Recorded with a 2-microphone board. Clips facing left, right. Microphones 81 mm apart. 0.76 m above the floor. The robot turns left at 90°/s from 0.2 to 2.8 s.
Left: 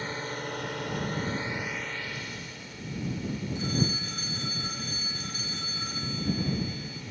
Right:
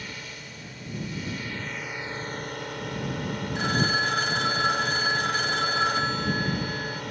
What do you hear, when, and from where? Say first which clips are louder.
0.0 s a drone: left 6 dB; 140° left; by 7.1 s 90° right
3.5 s a phone ringing: right 7 dB; 85° right